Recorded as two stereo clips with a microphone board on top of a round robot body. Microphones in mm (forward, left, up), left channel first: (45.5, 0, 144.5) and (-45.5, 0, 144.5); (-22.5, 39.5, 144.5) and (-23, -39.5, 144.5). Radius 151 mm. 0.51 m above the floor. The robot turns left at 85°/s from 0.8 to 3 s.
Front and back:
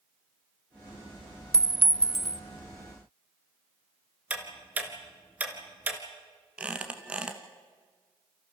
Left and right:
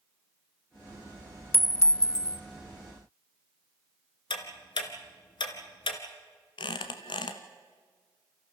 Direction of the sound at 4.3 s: 105° left.